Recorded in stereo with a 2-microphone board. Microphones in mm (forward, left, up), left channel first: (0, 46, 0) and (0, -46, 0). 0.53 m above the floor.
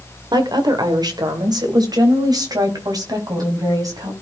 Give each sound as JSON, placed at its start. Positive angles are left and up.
{"t": 0.3, "sound": "a woman speaking", "side_deg": -50, "distance_m": 2.0}